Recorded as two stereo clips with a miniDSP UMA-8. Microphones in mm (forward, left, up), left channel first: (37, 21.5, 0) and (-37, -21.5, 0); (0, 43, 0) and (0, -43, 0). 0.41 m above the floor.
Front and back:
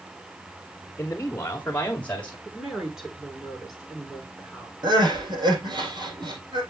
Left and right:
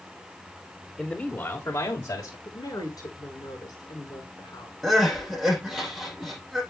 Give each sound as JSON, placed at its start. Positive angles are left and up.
{"t": 1.0, "sound": "a man speaking", "azimuth_deg": 20, "distance_m": 1.4}
{"t": 2.5, "sound": "a woman speaking", "azimuth_deg": 125, "distance_m": 6.0}
{"t": 4.8, "sound": "crying", "azimuth_deg": 180, "distance_m": 6.0}